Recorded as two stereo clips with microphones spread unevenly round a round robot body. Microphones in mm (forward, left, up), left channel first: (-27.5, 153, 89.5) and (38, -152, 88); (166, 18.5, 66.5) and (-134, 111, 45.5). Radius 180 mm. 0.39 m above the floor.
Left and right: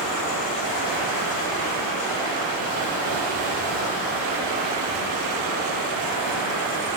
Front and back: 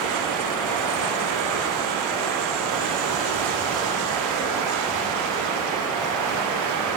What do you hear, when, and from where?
0.0 s running water: 105° right, 3 m